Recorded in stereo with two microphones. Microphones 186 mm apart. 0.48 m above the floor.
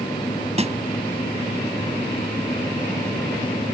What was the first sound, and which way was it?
A snare drum, 35° right (ahead or behind).